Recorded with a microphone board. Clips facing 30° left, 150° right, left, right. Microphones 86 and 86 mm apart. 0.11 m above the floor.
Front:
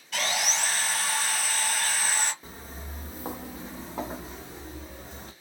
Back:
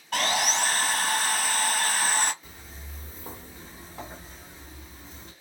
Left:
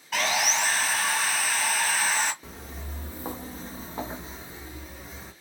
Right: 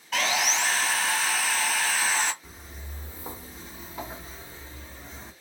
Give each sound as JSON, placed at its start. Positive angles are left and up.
{"t": 0.1, "sound": "sawing", "azimuth_deg": 175, "distance_m": 0.7}
{"t": 2.4, "sound": "footsteps", "azimuth_deg": 80, "distance_m": 1.0}